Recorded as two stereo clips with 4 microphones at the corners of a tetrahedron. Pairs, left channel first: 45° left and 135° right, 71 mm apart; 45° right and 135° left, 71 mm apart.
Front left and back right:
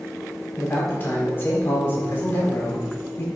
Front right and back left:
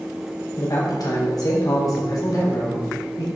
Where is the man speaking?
15° right, 4.5 m.